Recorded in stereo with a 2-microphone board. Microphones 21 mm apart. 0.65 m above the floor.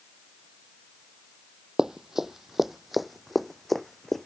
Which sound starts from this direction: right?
Running footsteps, at 1.8 s.